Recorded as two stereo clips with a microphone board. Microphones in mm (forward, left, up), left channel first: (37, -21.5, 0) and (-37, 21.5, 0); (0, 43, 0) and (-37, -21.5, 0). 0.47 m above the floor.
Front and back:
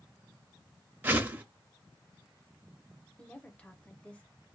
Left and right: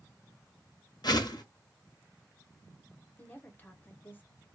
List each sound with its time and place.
1.0 s a whoosh: 80° left, 0.6 m
3.2 s a woman speaking: 30° left, 0.8 m